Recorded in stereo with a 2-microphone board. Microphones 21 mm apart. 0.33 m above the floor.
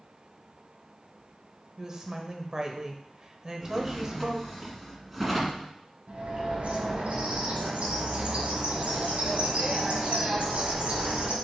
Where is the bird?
65° right (ahead or behind), 2.0 m.